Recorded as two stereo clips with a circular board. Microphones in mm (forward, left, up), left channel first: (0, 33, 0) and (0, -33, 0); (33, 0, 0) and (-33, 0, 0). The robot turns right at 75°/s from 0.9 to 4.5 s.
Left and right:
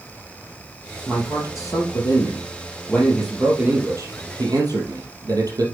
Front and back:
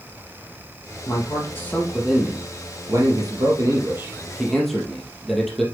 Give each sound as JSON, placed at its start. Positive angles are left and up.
{"t": 1.1, "sound": "a man speaking", "azimuth_deg": 15, "distance_m": 2.5}